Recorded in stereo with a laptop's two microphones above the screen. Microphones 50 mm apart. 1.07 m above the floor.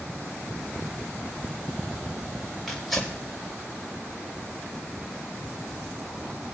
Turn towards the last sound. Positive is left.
turn(degrees=5)  # may be behind; listen again after turning